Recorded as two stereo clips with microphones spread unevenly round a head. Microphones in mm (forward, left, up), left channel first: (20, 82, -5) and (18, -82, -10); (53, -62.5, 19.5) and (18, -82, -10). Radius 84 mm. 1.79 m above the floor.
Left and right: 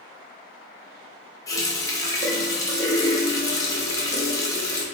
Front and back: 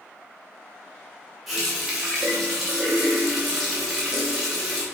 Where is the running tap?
40° left, 1.0 m.